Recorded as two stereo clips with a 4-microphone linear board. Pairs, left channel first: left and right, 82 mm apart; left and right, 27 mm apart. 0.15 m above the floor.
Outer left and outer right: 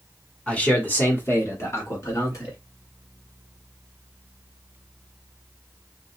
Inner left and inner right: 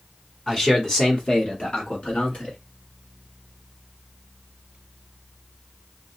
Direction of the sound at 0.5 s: 15° left (ahead or behind).